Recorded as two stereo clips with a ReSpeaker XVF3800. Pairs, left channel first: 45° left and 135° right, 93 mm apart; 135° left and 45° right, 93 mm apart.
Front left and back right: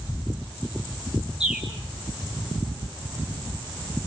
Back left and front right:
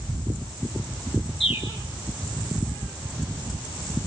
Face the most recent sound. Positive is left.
turn(degrees=140)